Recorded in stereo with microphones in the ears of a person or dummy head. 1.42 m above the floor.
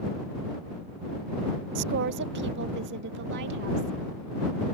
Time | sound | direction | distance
1.8 | a woman speaking | 55° right (ahead or behind) | ?